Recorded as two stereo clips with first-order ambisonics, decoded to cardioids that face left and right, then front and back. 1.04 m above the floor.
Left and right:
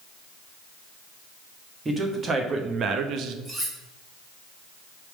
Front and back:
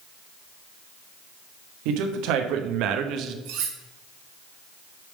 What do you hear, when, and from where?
1.9 s a man speaking: 165° right, 1.3 m; by 3.4 s 130° right, 0.8 m
3.5 s cutlery clinking: 175° right, 2 m